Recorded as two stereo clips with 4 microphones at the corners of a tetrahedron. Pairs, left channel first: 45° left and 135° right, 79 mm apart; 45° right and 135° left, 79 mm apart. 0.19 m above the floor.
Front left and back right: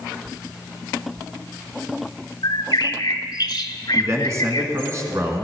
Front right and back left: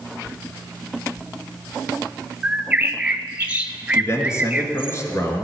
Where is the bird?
60° left, 0.8 m.